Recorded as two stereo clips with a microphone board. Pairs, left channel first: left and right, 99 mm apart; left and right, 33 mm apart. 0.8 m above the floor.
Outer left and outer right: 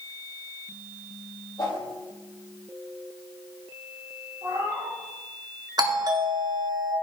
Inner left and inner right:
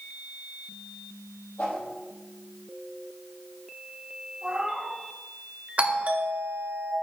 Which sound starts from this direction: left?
A whoosh, at 1.6 s.